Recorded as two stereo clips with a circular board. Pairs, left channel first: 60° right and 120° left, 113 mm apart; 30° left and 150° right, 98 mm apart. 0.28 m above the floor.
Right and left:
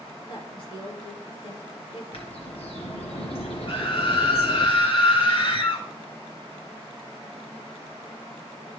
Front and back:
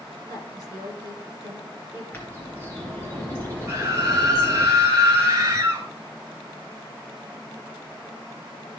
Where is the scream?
95° right, 2 m.